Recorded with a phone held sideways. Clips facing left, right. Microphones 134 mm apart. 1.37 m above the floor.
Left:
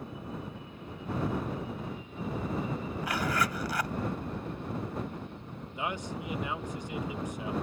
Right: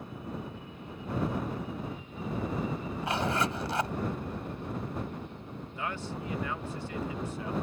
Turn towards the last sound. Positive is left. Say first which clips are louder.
# left 2 dB
turn(degrees=15)  # may be behind; listen again after turning